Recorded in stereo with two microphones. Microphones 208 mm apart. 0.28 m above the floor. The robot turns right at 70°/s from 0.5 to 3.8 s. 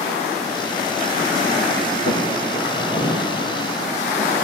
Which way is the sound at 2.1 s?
70° left (ahead or behind).